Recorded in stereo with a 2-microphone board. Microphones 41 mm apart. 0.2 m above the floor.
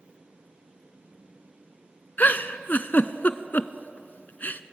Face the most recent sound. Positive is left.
turn(degrees=50)  # may be behind; listen again after turning